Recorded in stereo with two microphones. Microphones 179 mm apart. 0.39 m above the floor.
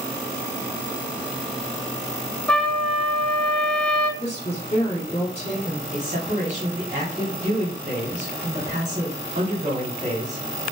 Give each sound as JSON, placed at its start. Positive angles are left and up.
{"t": 2.5, "sound": "a trumpet", "side_deg": 5, "distance_m": 0.5}
{"t": 4.2, "sound": "a woman speaking", "side_deg": 35, "distance_m": 1.5}
{"t": 5.9, "sound": "a man speaking", "side_deg": -40, "distance_m": 1.6}